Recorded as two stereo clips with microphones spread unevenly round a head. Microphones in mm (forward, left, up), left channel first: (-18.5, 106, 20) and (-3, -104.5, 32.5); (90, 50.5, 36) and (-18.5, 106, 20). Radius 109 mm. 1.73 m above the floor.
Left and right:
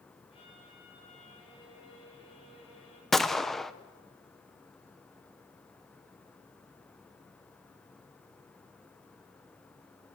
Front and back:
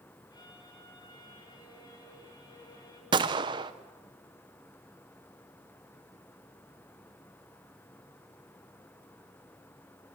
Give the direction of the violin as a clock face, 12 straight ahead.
11 o'clock.